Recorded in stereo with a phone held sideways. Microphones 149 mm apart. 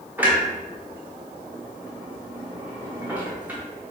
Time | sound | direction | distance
0.2 | a clunk | 15° right (ahead or behind) | 0.9 m